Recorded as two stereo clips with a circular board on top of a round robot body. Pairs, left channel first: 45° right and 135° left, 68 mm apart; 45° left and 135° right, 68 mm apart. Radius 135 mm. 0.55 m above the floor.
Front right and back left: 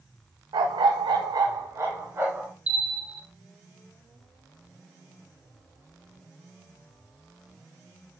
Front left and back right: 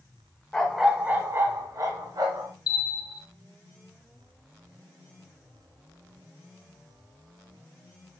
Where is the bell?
60° left, 0.7 m.